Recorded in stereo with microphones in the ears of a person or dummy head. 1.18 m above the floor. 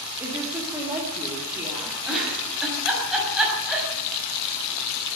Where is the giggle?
Centre (ahead or behind), 6.5 m.